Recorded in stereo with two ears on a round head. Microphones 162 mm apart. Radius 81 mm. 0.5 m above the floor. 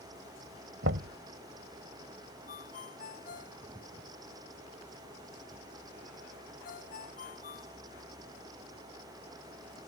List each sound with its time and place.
0.8 s knocking: 70° right (ahead or behind)
2.5 s a ringtone: 50° left (ahead or behind)